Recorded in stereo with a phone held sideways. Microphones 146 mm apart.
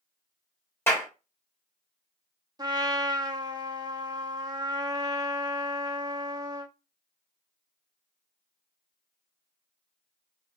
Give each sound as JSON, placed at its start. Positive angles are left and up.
{"t": 0.9, "sound": "a clap", "side_deg": 15, "distance_m": 1.5}
{"t": 2.6, "sound": "a trumpet", "side_deg": -25, "distance_m": 0.8}